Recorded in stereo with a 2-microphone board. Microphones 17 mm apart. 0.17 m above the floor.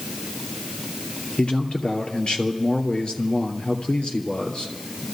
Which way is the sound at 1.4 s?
70° left (ahead or behind).